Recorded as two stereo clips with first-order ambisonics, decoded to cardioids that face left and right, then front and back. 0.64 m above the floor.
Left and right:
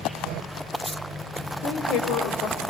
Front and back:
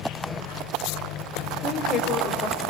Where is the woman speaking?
60° left, 3 m.